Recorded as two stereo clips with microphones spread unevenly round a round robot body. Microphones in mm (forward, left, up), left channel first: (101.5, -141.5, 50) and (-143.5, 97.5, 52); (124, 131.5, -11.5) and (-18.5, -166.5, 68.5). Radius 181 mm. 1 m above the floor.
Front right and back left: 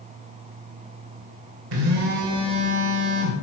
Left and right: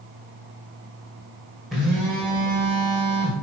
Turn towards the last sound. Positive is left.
turn(degrees=155)